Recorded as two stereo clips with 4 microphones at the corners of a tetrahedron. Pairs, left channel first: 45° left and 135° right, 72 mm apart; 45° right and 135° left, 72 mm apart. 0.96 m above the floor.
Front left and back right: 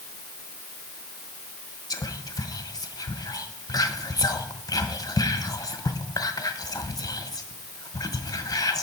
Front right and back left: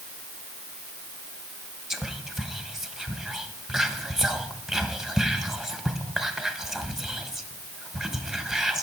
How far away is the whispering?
About 0.8 m.